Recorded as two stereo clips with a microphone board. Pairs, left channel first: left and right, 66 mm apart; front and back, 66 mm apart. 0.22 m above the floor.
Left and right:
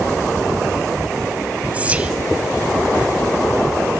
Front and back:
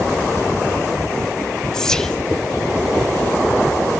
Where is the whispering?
65° right, 1.0 m.